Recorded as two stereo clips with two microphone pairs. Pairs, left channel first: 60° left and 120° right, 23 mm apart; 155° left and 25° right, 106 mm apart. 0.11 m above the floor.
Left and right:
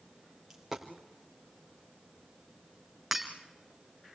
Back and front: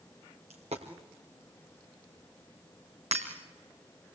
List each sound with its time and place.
0.5 s a dropped coin: 40° right, 3.5 m
3.1 s breaking glass: 40° right, 3 m